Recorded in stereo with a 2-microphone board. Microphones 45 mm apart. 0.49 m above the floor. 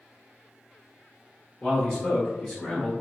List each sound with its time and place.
1.6 s a man speaking: 20° left (ahead or behind), 0.8 m; by 2.9 s 5° left (ahead or behind), 1.2 m